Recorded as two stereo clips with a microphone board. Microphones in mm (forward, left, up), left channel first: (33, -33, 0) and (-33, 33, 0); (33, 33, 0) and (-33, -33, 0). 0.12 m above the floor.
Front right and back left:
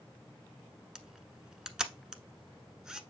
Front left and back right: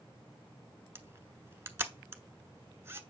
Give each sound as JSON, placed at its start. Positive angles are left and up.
{"t": 0.9, "sound": "a camera shutter", "azimuth_deg": -155, "distance_m": 0.8}